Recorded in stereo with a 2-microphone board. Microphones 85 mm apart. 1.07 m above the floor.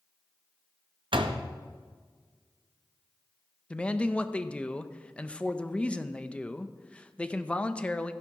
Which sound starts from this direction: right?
A door slam, at 1.1 s.